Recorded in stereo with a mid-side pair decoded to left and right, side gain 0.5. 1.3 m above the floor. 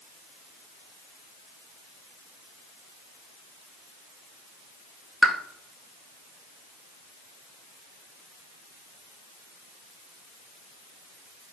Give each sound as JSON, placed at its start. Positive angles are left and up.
{"t": 5.2, "sound": "a pop", "azimuth_deg": -30, "distance_m": 0.6}